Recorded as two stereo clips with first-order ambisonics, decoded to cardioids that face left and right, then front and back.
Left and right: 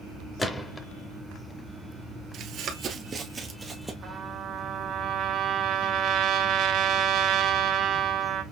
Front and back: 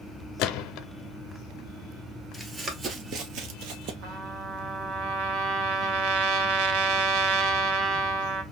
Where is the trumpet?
140° right, 1.0 m.